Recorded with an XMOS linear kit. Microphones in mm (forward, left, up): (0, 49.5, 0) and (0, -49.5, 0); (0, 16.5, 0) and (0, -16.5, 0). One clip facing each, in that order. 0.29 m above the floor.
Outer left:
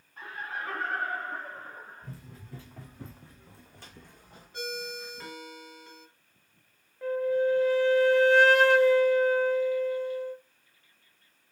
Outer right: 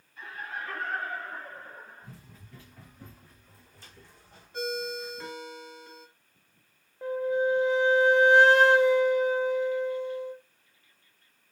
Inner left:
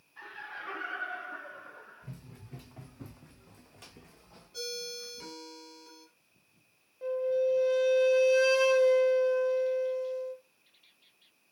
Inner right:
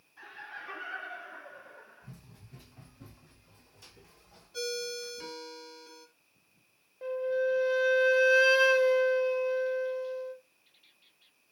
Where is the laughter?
60° left (ahead or behind), 3 m.